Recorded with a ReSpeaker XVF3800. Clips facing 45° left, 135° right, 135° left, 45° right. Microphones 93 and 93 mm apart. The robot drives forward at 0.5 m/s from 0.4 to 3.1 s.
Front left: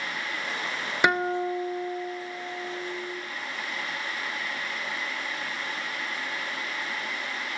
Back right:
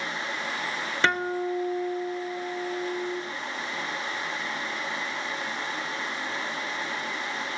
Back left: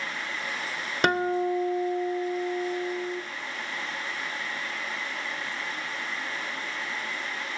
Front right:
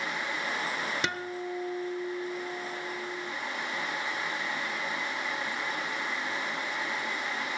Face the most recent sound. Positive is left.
turn(degrees=155)